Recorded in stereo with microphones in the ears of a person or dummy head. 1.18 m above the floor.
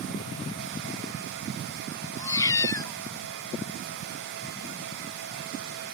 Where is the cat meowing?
15° left (ahead or behind).